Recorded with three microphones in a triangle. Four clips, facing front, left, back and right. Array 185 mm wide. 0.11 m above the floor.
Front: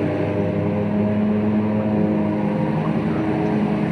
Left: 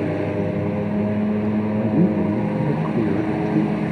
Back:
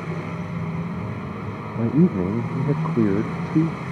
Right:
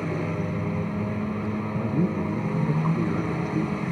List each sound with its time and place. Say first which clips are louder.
0.0 s a lawn mower: left 6 dB, front 10 dB; 30° left
1.8 s a man speaking: left 6 dB, front 1 dB; 150° left